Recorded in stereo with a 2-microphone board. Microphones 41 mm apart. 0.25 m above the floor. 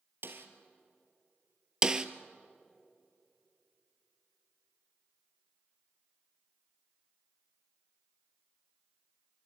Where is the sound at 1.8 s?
20° right (ahead or behind), 1.0 m.